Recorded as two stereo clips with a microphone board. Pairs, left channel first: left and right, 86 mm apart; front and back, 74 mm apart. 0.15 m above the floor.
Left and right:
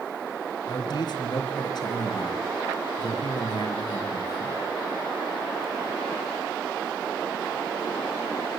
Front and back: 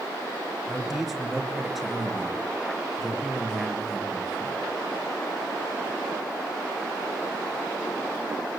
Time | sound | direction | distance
0.7 | a man speaking | 90° left | 3 m